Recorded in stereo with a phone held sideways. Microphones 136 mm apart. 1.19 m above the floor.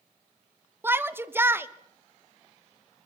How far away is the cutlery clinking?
I don't hear cutlery clinking.